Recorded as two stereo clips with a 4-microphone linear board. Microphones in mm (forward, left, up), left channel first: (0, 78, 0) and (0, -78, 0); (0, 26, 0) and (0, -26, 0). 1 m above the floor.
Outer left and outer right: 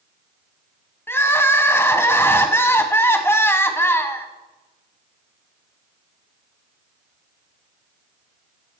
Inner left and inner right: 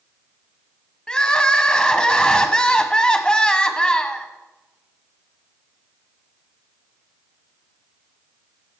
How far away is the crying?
About 1.0 m.